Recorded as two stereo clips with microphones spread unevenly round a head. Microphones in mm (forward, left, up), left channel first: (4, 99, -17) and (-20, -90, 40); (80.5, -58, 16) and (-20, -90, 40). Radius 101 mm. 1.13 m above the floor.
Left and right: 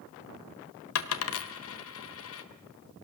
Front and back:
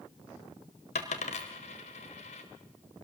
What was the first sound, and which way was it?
A dropped coin, 65° left.